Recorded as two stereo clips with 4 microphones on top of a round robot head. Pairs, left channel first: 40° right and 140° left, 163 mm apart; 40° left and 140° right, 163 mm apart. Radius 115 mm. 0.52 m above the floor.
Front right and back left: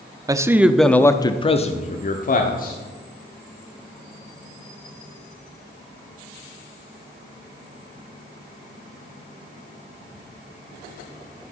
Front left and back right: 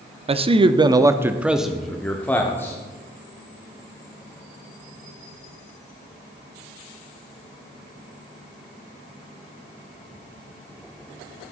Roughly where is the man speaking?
Behind.